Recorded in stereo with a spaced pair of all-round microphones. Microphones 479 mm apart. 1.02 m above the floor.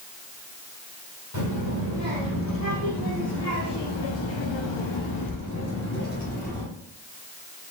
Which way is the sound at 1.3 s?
35° left (ahead or behind).